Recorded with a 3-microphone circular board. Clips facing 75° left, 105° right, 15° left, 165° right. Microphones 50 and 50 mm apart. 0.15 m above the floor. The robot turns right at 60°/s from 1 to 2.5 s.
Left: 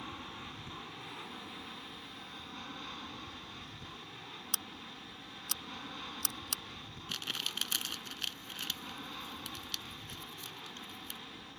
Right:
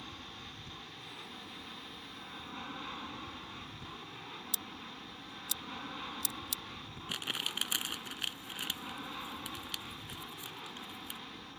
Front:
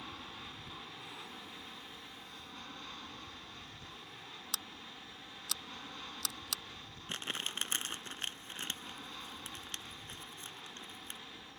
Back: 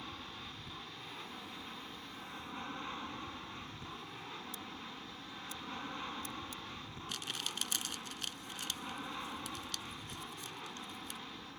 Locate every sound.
0.0 s an aircraft: 105° left; by 11.6 s 165° right
4.5 s scissors: 35° left
7.1 s crumpling: 35° right